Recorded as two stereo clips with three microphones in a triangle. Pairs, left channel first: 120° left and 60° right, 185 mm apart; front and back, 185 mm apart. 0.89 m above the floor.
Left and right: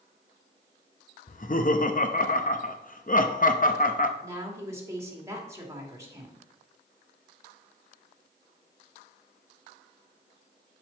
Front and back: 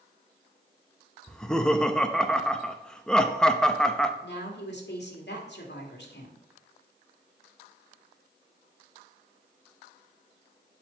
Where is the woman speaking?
15° left, 1.9 m.